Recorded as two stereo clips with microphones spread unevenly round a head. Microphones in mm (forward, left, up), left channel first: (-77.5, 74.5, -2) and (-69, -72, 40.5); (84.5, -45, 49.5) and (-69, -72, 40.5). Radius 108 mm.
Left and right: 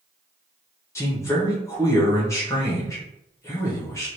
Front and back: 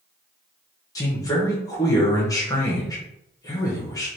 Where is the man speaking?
70° left, 1.0 m.